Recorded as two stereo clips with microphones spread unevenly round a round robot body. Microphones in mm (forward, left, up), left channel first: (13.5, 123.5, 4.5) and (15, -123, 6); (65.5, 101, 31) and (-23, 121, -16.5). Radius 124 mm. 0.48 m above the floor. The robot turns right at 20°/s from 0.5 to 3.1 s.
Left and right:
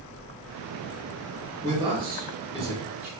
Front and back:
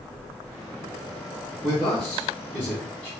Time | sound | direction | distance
1.6 | a man speaking | 150° right | 1.0 m